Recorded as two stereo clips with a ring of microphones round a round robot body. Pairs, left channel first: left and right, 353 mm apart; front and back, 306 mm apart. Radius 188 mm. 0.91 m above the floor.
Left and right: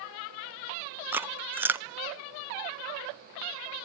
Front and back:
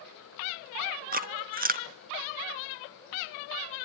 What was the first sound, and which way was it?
Chewing, 170° right.